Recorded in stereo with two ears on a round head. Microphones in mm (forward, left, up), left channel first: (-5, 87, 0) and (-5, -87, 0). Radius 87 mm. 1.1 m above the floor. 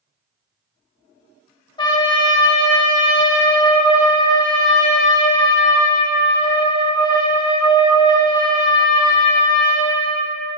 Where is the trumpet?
25° left (ahead or behind), 0.7 m.